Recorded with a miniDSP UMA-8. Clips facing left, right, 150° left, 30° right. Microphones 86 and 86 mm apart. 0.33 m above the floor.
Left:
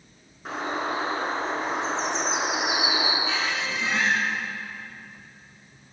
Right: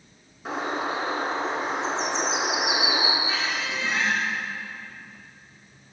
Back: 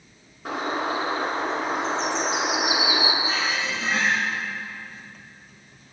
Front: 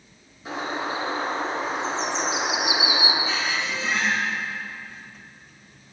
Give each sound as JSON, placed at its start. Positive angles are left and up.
{"t": 0.5, "sound": "a bird", "azimuth_deg": 180, "distance_m": 5.5}
{"t": 3.2, "sound": "a squeak", "azimuth_deg": 100, "distance_m": 9.5}